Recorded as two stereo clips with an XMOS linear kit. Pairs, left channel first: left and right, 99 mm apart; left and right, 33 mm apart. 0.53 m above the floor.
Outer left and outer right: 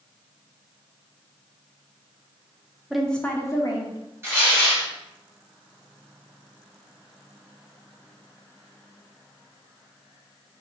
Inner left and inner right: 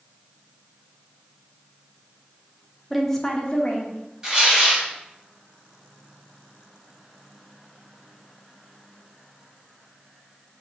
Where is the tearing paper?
25° right (ahead or behind), 1.9 m.